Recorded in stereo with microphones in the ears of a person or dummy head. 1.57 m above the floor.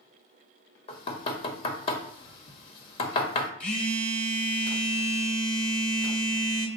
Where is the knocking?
40° left (ahead or behind), 0.8 m.